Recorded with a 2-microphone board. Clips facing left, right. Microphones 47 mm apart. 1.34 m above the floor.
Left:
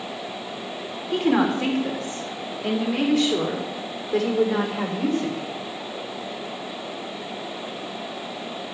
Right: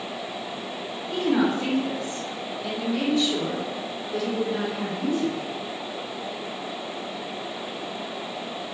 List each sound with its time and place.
1.1 s a woman speaking: 55° left (ahead or behind), 3.5 m; by 5.4 s 85° left, 4 m